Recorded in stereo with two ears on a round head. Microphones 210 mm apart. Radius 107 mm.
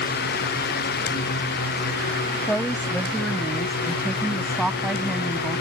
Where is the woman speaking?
5° left (ahead or behind); by 5.6 s centre (ahead or behind).